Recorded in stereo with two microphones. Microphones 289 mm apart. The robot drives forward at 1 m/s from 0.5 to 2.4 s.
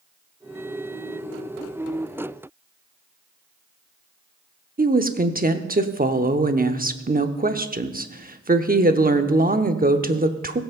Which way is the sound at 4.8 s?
30° right (ahead or behind).